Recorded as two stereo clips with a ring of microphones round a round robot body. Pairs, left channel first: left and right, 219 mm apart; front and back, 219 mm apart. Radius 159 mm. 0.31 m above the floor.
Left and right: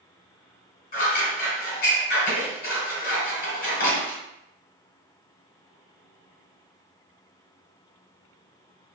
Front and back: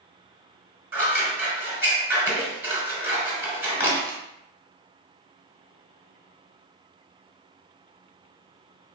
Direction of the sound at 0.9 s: 105° left.